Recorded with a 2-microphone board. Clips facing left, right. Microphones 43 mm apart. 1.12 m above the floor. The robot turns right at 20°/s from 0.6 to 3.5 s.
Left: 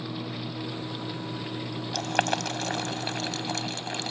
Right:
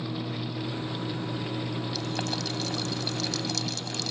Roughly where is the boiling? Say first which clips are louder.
Left 5 dB; left.